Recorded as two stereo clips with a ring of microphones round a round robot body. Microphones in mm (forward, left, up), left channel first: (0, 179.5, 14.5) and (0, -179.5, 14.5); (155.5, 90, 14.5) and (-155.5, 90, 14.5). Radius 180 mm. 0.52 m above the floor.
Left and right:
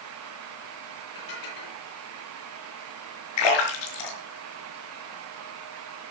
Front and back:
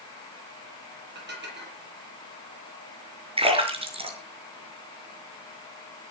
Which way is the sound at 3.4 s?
105° left.